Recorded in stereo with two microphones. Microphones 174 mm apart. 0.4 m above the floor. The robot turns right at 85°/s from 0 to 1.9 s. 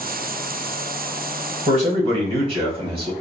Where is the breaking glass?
I don't hear breaking glass.